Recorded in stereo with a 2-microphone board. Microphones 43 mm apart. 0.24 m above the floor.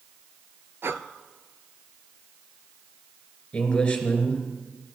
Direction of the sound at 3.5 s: 20° left (ahead or behind).